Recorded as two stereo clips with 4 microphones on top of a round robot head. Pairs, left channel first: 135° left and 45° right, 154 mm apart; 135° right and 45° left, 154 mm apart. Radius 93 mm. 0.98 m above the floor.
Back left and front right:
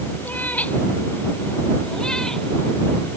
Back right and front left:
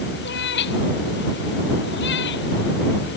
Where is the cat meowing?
145° right; by 3.2 s 140° right.